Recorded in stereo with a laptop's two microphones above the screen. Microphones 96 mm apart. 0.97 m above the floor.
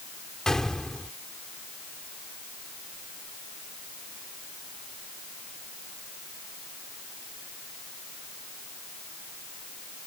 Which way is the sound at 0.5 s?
5° left (ahead or behind).